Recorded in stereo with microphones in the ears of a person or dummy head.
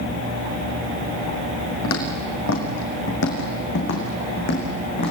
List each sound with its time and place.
1.8 s footsteps: 75° left (ahead or behind), 5 m; by 5.1 s 35° left (ahead or behind), 6.5 m